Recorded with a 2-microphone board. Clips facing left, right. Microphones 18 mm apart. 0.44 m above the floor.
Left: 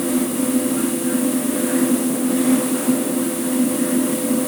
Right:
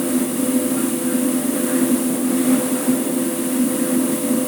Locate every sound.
Only background noise.